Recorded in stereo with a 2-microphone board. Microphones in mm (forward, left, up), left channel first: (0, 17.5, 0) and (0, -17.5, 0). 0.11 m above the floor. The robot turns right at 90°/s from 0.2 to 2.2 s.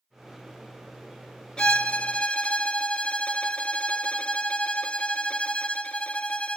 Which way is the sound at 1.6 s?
55° left.